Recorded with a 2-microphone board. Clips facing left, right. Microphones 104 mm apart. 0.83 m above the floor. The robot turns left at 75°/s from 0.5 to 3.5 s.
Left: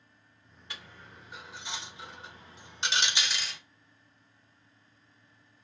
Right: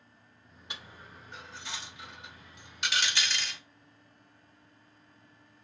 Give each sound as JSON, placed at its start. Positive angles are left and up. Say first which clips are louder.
{"t": 0.7, "sound": "a dropped coin", "louder": "right 1 dB", "side_deg": -20, "distance_m": 0.6}